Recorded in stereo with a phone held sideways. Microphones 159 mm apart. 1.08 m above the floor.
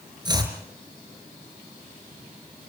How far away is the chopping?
About 5 m.